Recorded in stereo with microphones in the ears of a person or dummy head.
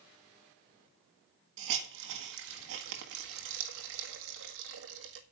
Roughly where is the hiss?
Right.